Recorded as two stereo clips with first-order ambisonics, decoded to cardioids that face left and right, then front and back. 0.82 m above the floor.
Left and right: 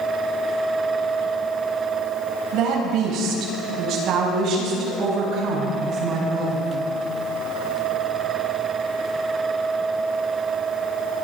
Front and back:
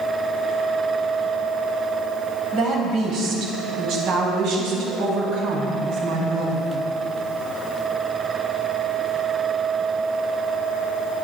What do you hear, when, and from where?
2.5 s a woman speaking: 130° right, 4.5 m; by 6.7 s 145° right, 7.5 m